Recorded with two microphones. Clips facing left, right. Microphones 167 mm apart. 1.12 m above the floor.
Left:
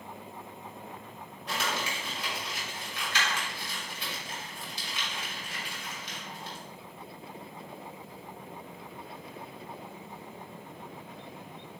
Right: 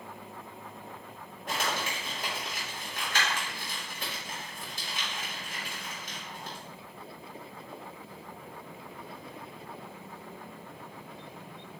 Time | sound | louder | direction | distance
1.5 | crumpling | right 1 dB | 45° right (ahead or behind) | 1.6 m